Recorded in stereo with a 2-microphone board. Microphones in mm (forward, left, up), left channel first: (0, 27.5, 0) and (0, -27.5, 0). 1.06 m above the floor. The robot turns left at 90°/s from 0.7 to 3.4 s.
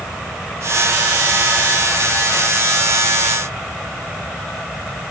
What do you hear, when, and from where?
Only background noise.